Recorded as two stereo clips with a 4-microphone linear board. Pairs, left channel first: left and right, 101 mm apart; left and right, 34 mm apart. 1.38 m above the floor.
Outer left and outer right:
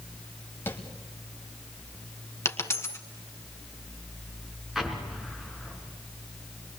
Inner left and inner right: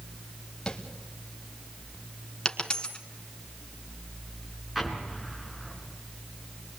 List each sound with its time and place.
0.7 s tapping: 20° left (ahead or behind), 2 m
2.5 s a dropped coin: 25° left (ahead or behind), 1.4 m
4.8 s an explosion: 5° right (ahead or behind), 3 m